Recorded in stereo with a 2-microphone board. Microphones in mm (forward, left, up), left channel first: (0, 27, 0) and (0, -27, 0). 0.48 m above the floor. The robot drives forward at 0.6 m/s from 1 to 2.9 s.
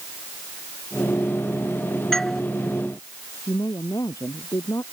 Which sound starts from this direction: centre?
A doorbell, at 2.1 s.